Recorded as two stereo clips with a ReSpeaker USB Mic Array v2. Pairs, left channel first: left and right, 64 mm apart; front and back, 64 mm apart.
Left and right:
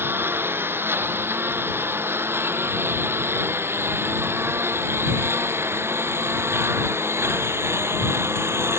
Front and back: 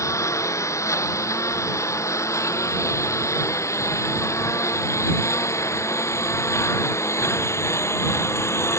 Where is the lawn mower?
35° right; by 8.8 s 45° right.